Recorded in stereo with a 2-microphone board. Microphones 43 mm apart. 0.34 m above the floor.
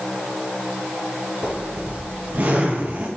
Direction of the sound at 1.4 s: 50° right (ahead or behind).